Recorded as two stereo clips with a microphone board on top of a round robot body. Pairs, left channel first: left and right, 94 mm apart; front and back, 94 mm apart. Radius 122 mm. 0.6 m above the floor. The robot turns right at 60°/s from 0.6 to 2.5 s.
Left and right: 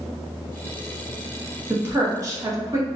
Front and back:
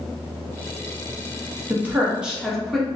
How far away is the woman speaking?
About 1.0 m.